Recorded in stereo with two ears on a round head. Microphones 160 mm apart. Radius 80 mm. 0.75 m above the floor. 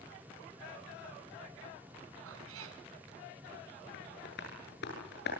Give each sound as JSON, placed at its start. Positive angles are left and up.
{"t": 2.2, "sound": "a cat meowing", "side_deg": -80, "distance_m": 2.5}
{"t": 3.9, "sound": "tapping", "side_deg": 60, "distance_m": 8.5}